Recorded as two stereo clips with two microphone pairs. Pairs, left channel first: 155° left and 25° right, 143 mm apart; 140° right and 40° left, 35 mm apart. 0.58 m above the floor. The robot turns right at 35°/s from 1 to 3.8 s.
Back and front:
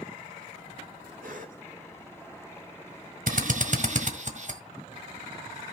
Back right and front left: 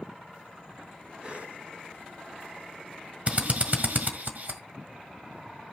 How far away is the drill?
About 1.6 m.